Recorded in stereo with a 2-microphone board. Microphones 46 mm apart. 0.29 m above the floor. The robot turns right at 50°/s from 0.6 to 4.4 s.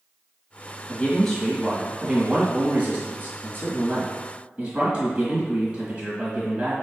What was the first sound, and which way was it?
A man speaking, 150° left.